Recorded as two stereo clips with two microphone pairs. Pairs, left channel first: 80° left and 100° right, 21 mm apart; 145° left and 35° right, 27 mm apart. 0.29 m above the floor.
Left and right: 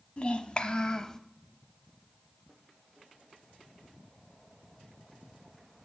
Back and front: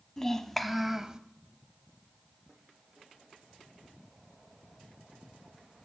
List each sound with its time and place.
0.2 s a child speaking: 80° left, 1.0 m; by 1.2 s 25° left, 0.7 m